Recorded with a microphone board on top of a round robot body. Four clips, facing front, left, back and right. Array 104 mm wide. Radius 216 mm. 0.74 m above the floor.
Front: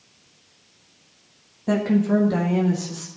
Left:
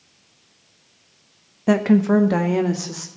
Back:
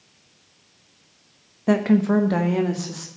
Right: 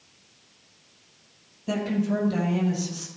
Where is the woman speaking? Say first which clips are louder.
Left 10 dB, back 2 dB; 115° left, 1.3 m.